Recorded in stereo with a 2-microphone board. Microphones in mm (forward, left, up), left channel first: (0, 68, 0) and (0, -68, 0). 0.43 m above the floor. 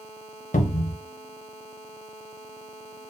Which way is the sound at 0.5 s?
65° left (ahead or behind).